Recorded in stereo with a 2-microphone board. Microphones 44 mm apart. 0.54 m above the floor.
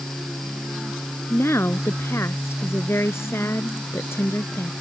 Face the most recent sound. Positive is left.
turn(degrees=85)